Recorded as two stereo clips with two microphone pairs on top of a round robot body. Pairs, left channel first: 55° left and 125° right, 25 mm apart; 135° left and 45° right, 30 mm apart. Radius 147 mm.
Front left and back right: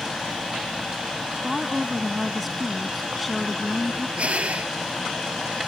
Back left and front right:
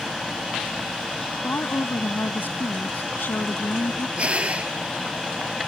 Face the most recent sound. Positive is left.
turn(degrees=-90)